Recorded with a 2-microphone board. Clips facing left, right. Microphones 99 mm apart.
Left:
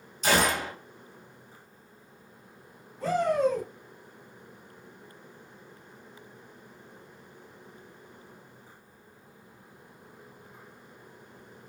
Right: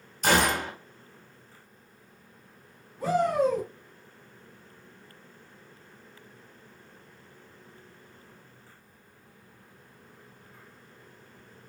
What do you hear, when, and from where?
0.2 s a gunshot: 55° right (ahead or behind), 0.9 m
3.0 s a shout: 10° right (ahead or behind), 1.0 m